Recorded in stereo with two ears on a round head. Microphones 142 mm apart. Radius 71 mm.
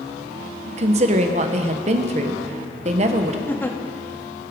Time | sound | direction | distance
0.7 | a woman speaking | 40° right (ahead or behind) | 1.2 m
3.5 | a giggle | 15° left (ahead or behind) | 1.2 m